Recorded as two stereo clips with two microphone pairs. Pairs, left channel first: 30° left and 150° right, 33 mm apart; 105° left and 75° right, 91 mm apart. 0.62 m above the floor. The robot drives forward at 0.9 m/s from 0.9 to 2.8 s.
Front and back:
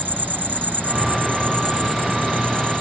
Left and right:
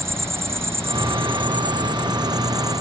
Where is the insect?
135° right; by 2.8 s 160° right.